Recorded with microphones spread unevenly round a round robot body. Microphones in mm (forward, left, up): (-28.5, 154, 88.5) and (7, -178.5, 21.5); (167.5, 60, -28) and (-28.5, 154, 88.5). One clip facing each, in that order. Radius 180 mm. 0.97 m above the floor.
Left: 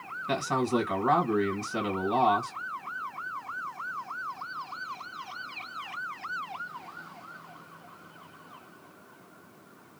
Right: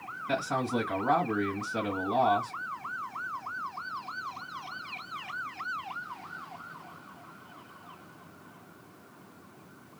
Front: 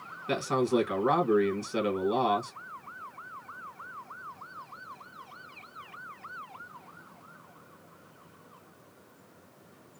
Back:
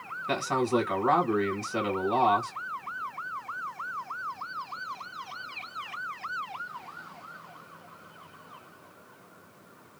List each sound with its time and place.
0.3 s a man speaking: 40° left, 1.5 m